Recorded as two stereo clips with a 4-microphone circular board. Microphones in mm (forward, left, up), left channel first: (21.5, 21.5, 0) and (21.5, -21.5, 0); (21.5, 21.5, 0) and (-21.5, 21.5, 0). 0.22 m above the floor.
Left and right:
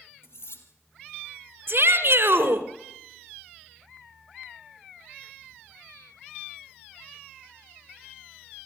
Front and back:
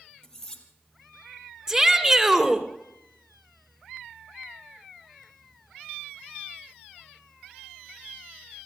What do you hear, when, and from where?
0.2 s cutlery clinking: 75° left, 3 m
1.7 s a shout: 110° right, 2 m